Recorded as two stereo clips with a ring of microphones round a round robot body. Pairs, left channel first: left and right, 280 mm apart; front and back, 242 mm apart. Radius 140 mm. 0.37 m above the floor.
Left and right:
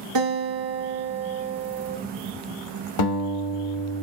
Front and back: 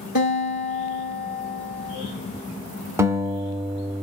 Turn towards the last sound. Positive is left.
turn(degrees=100)